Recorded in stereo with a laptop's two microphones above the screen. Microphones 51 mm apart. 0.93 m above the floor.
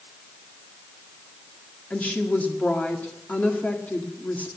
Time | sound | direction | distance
1.9 | a woman speaking | 30° left (ahead or behind) | 1.8 m